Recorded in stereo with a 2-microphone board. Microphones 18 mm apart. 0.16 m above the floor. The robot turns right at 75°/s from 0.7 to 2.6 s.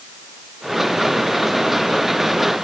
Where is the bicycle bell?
No bicycle bell in this recording.